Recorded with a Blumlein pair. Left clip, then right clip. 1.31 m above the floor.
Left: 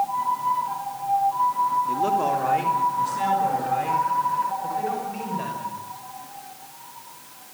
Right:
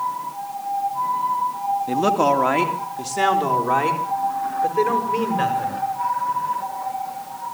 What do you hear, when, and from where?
1.9 s a man speaking: 40° right, 1.9 m; by 5.8 s 60° right, 6.5 m